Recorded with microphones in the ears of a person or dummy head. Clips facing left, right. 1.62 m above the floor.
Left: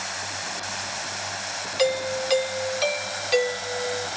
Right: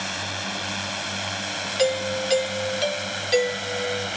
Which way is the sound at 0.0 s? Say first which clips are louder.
Right 3 dB; 45° right (ahead or behind).